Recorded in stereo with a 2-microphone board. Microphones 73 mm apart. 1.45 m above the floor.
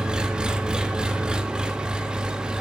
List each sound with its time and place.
0.0 s an engine running: 10° right (ahead or behind), 1.4 m